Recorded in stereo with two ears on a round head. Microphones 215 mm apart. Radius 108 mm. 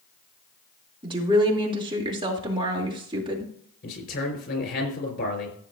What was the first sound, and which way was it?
A woman speaking, 20° right (ahead or behind).